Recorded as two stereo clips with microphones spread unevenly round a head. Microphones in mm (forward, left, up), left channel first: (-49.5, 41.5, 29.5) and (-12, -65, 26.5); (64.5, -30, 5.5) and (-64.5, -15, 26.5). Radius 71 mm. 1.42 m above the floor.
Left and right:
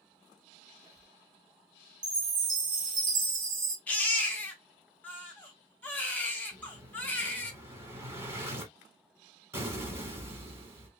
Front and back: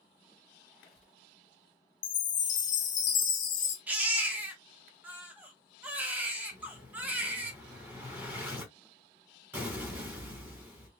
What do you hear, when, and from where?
0.7 s a squeak: 30° right, 1.4 m
2.0 s a chime: 35° right, 0.9 m
3.9 s a baby crying: 160° left, 0.6 m
6.5 s an explosion: 130° right, 1.2 m